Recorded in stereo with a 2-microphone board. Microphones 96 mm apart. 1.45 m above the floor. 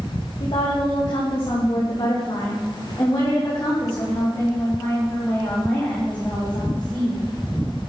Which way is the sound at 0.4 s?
75° left (ahead or behind).